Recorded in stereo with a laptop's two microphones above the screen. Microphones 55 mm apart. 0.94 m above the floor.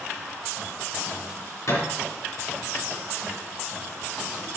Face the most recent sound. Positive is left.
turn(degrees=65)  # may be behind; listen again after turning